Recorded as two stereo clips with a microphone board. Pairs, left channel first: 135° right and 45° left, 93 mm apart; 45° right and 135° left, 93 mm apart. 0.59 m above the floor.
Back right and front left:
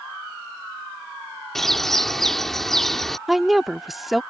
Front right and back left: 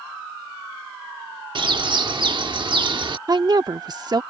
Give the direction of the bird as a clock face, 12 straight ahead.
7 o'clock.